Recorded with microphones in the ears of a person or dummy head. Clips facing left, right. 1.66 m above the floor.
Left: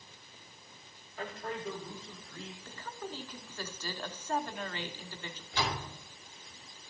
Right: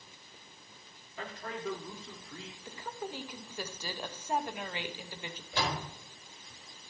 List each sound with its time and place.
1.2 s a man speaking: 60° right (ahead or behind), 3 m; by 2.5 s 70° right (ahead or behind), 3.5 m
2.6 s a woman speaking: 10° right (ahead or behind), 0.9 m
5.5 s a door slam: 45° right (ahead or behind), 4.5 m